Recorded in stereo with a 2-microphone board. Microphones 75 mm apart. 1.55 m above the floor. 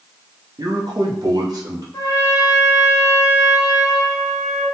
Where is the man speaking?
60° right (ahead or behind), 0.7 m; by 1.8 s 55° right (ahead or behind), 1.3 m.